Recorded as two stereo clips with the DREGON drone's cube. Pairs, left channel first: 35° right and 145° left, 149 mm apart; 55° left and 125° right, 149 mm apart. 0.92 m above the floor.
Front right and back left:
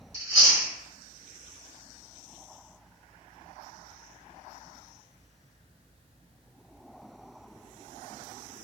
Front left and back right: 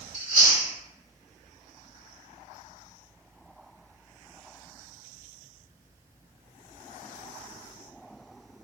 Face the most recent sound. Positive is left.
turn(degrees=-145)